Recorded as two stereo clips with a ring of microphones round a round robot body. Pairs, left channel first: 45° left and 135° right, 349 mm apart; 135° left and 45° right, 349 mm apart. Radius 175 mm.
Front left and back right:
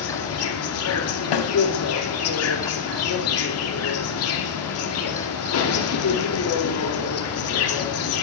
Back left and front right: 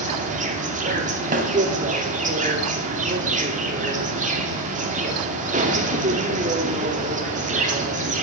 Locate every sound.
0.0 s an insect: 15° left, 2.5 m
1.3 s a snare drum: 25° left, 3 m